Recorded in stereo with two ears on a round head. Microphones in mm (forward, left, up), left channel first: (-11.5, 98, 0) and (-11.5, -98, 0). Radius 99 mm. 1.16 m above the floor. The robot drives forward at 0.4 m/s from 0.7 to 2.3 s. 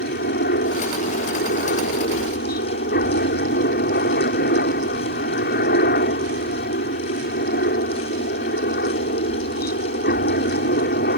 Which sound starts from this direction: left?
A helicopter, at 0.0 s.